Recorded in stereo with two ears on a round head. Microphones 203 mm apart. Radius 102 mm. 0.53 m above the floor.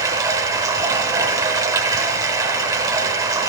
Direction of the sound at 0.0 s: 15° right (ahead or behind).